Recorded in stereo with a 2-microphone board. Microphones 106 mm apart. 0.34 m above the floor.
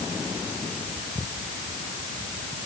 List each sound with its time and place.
Only background noise.